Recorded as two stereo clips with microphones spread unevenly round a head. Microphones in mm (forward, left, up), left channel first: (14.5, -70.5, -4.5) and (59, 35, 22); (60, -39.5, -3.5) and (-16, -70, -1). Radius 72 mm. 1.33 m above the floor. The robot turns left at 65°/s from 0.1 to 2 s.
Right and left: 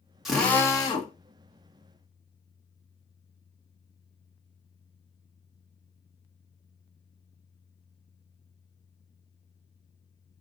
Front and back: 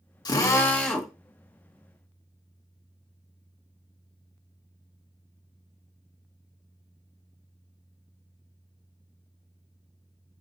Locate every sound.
0.2 s a drill: 20° right, 1.4 m; by 1.1 s 75° right, 1.4 m